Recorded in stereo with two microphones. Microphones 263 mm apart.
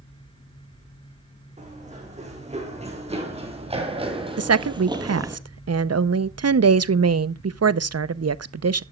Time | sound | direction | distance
1.6 | running footsteps | 25° right (ahead or behind) | 5 m
4.4 | a woman speaking | 70° right (ahead or behind) | 0.6 m